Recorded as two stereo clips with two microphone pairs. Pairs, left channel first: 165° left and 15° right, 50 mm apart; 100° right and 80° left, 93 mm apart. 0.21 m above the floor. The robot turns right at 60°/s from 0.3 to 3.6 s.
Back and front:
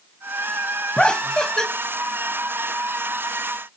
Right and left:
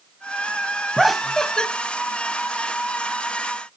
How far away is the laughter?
About 0.9 m.